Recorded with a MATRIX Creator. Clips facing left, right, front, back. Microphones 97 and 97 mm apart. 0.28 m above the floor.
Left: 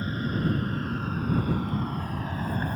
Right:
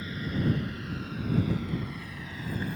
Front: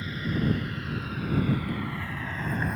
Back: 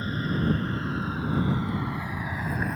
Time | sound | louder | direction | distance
0.0 | an aircraft | left 2 dB, back 2 dB | 135° left | ?